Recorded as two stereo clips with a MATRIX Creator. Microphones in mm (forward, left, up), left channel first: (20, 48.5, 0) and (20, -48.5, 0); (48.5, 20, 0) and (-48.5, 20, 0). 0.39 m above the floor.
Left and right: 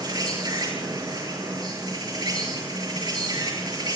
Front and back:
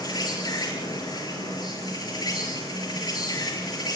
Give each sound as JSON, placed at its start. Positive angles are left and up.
{"t": 0.0, "sound": "an insect", "azimuth_deg": -45, "distance_m": 7.5}